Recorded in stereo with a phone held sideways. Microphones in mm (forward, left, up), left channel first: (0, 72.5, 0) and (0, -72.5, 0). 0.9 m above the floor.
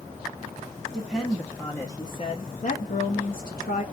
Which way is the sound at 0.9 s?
Centre (ahead or behind).